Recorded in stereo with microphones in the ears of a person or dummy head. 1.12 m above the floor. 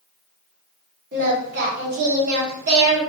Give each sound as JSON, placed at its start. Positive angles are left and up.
{"t": 1.1, "sound": "singing", "side_deg": -50, "distance_m": 1.3}